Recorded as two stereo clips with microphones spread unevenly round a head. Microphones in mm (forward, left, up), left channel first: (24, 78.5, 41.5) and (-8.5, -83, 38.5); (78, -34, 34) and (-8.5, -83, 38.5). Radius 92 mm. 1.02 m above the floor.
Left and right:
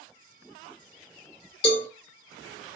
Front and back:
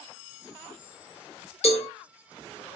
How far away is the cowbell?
About 1.3 m.